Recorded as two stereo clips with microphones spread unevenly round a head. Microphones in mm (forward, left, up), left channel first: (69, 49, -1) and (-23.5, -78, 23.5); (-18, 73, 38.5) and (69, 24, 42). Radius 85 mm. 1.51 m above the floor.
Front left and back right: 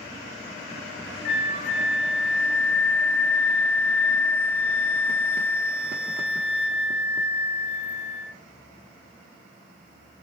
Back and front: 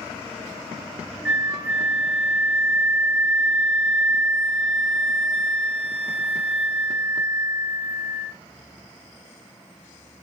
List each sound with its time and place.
1.2 s a flute: 55° left, 3 m